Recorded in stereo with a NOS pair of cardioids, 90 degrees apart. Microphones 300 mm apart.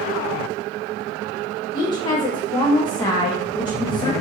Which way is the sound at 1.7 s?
15° left.